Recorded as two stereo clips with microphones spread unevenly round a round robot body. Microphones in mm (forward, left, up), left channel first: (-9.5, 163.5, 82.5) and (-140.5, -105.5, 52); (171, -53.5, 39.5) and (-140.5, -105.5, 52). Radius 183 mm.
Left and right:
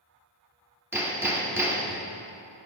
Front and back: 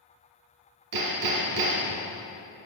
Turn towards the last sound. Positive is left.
turn(degrees=160)